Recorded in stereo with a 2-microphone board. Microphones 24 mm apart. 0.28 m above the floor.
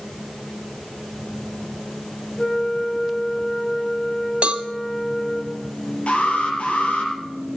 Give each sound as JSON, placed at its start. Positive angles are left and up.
{"t": 2.4, "sound": "a flute", "side_deg": 70, "distance_m": 9.0}
{"t": 4.4, "sound": "a cowbell", "side_deg": -60, "distance_m": 0.8}
{"t": 6.1, "sound": "an alarm", "side_deg": 55, "distance_m": 5.5}